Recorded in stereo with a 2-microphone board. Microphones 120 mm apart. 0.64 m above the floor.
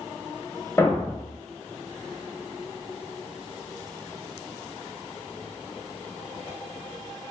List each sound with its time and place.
0.8 s a thud: 20° left (ahead or behind), 0.6 m